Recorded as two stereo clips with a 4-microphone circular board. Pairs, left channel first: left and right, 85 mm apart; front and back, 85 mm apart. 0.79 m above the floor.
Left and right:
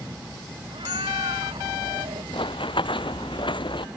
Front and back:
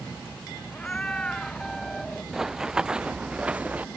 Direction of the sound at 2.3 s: 95° left.